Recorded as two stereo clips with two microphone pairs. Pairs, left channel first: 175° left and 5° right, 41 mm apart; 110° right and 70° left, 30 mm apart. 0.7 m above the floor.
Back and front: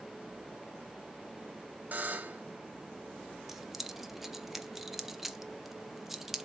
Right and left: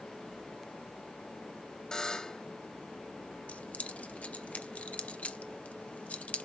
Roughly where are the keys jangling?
Right.